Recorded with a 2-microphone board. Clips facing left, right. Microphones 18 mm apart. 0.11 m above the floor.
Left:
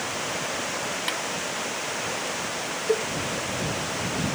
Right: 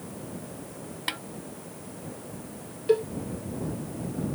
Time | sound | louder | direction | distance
0.0 | running water | left 11 dB | 80° left | ?
1.1 | a snare drum | left 1 dB | centre (ahead or behind) | ?
2.9 | a cowbell | right 2 dB | 10° right (ahead or behind) | ?